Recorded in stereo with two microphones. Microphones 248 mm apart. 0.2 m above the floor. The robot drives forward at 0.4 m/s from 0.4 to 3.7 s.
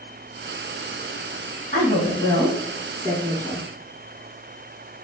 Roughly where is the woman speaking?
Left.